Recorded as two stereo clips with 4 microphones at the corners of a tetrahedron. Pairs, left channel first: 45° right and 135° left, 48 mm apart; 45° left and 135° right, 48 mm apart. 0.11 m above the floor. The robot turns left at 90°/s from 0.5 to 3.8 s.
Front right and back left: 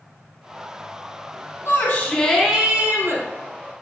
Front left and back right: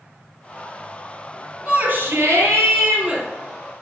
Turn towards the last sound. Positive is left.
turn(degrees=95)